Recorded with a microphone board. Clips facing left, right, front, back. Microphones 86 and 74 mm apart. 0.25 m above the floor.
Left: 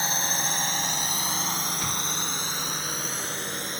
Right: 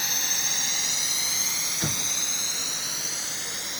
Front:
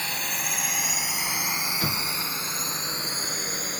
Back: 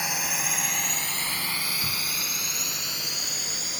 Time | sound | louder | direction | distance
0.0 | a drone | left 6 dB, back 1 dB | 110° left | ?
1.8 | an explosion | left 2 dB, front 4 dB | 40° right | ?